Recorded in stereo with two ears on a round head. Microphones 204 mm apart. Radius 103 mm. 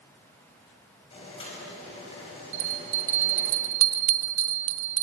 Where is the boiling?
25° left (ahead or behind), 5.5 m.